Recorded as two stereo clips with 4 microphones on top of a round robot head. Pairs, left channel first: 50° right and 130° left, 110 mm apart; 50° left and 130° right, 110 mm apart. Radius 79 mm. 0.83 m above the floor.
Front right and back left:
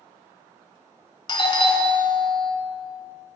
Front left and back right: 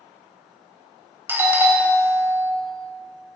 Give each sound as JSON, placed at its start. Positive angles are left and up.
{"t": 1.3, "sound": "a doorbell", "azimuth_deg": -70, "distance_m": 1.1}